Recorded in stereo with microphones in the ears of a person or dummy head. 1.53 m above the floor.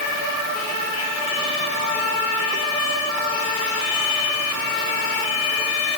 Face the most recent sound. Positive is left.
No sound to turn to.